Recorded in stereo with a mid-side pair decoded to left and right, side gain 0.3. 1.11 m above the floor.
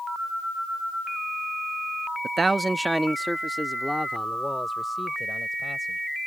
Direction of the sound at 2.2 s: 50° right.